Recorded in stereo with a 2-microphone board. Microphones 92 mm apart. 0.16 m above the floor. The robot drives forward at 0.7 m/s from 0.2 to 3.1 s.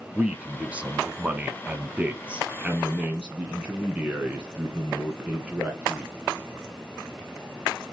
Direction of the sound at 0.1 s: 15° right (ahead or behind).